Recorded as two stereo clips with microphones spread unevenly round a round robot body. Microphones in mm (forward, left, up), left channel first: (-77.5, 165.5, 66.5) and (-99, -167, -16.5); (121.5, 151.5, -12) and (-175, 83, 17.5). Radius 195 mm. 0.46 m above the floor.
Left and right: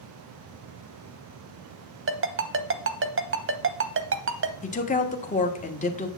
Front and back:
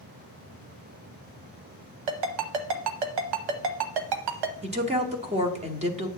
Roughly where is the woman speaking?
Behind left.